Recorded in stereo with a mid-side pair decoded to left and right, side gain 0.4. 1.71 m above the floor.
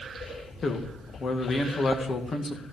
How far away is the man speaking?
About 2.0 m.